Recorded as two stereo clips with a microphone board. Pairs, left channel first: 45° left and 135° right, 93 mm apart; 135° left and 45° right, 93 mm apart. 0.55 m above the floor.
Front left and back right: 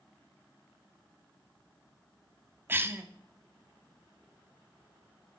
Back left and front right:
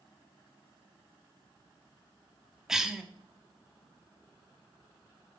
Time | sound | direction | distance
2.7 | a cough | 120° right | 0.7 m